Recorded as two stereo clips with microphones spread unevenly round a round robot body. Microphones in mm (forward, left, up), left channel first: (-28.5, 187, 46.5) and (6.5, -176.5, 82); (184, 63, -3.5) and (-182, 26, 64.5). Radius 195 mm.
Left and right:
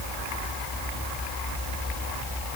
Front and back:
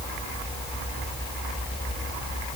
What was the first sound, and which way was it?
Only background noise.